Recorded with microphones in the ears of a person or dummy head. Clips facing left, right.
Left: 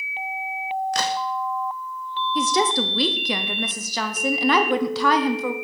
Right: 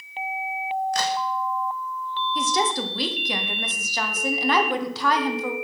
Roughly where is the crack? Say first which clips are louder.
Even; left.